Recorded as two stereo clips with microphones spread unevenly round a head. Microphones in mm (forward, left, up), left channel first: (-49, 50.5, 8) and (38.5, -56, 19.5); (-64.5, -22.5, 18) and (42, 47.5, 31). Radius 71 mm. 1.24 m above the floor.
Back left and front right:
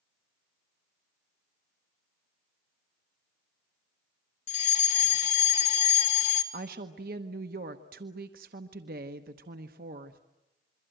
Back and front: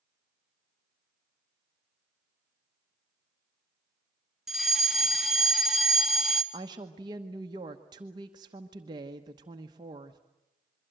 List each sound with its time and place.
4.5 s a fire alarm: 125° left, 2.0 m
6.5 s a woman speaking: 25° right, 1.1 m